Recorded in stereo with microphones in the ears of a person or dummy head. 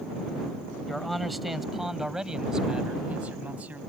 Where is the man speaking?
Centre (ahead or behind); by 3.8 s 10° right (ahead or behind).